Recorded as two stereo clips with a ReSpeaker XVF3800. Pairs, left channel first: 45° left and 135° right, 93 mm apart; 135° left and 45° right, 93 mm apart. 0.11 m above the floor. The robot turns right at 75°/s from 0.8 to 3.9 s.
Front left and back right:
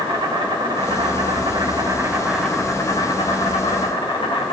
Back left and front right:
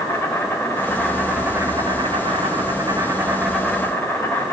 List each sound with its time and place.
0.0 s an insect: 160° right, 4.5 m; by 4.5 s 70° left, 4.5 m